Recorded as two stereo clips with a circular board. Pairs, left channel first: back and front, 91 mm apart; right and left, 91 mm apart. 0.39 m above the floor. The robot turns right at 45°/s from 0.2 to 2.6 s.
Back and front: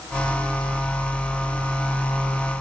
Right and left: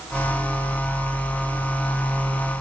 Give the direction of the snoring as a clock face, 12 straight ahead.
I don't hear snoring.